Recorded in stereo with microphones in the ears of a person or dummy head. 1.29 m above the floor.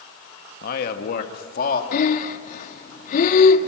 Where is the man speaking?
55° left (ahead or behind), 1.8 m; by 1.8 s 50° left (ahead or behind), 2.5 m.